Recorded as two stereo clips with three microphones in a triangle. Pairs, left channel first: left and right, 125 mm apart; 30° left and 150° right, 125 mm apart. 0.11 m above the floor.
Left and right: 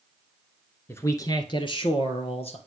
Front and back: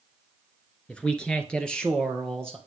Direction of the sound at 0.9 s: 90° left.